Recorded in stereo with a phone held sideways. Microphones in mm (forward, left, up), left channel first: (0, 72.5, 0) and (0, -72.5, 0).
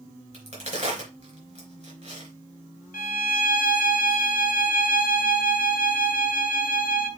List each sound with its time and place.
0.3 s a crack: 50° right (ahead or behind), 3.5 m
2.9 s a violin: 70° left (ahead or behind), 0.7 m